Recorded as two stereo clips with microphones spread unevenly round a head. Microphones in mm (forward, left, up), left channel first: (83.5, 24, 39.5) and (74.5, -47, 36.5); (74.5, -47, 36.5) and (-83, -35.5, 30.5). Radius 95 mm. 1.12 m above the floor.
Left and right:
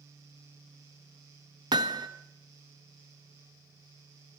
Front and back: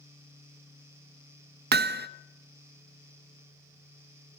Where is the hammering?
160° right, 0.9 m.